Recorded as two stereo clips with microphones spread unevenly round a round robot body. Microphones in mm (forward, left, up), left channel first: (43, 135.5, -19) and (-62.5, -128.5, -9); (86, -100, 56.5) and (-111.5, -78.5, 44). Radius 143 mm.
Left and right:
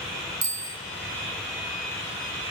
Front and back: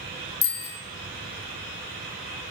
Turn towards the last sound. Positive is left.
turn(degrees=-65)